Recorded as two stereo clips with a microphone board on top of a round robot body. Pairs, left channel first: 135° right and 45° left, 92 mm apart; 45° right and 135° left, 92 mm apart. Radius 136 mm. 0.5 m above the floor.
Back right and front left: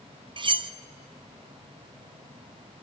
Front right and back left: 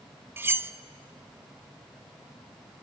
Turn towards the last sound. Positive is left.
turn(degrees=70)